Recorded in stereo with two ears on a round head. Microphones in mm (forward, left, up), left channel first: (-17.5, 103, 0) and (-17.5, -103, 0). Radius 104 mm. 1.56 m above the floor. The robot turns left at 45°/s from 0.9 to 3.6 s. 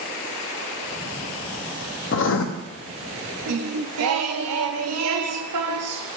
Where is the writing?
50° left (ahead or behind), 0.7 m; by 2.5 s 65° left (ahead or behind), 0.7 m.